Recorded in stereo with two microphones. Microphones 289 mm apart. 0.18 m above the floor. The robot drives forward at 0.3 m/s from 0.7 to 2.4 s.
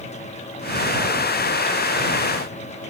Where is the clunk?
No clunk in this recording.